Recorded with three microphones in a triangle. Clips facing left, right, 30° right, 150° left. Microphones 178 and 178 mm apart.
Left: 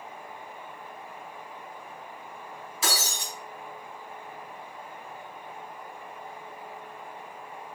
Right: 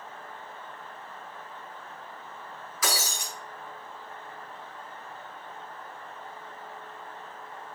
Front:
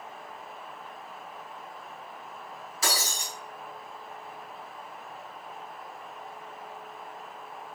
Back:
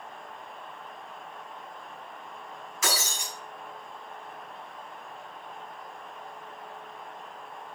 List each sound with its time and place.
2.8 s breaking glass: 25° left, 4 m